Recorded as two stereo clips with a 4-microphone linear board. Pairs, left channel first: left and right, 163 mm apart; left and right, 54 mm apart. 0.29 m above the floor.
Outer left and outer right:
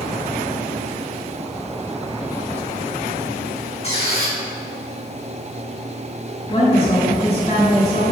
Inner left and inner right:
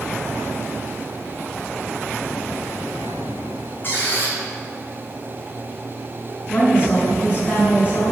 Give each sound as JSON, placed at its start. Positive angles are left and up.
{"t": 3.8, "sound": "a squeak", "side_deg": 40, "distance_m": 1.6}
{"t": 6.5, "sound": "a woman speaking", "side_deg": 40, "distance_m": 2.0}